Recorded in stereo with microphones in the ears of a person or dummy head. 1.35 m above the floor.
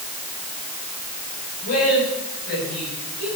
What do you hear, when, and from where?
1.6 s a woman speaking: 50° left (ahead or behind), 8 m